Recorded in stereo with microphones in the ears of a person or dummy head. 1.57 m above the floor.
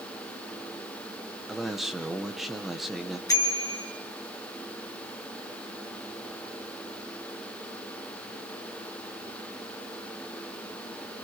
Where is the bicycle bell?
20° left (ahead or behind), 3.5 m.